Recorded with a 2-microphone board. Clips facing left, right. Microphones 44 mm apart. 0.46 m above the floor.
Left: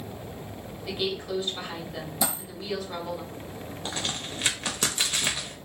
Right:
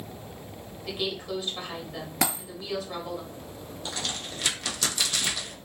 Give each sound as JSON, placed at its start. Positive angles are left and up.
{"t": 0.8, "sound": "a woman speaking", "side_deg": -5, "distance_m": 1.6}
{"t": 2.2, "sound": "a dropped coin", "side_deg": -70, "distance_m": 1.4}
{"t": 3.9, "sound": "a crack", "side_deg": 30, "distance_m": 0.7}